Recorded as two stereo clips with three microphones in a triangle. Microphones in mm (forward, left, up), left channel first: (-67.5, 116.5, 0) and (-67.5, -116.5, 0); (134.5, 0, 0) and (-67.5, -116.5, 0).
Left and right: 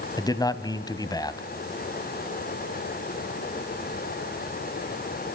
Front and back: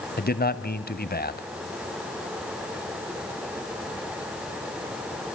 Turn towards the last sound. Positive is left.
turn(degrees=25)